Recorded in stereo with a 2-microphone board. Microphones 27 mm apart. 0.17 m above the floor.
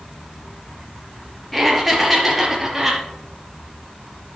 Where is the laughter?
10° left (ahead or behind), 3.5 m; by 3.0 s centre (ahead or behind), 4.5 m.